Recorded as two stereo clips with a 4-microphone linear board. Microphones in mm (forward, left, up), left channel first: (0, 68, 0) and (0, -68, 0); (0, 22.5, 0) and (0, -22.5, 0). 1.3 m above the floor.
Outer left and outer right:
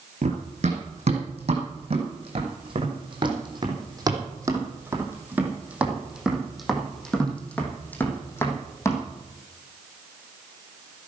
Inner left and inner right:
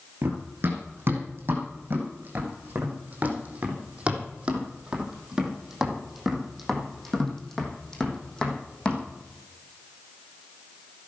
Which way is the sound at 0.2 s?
55° right (ahead or behind).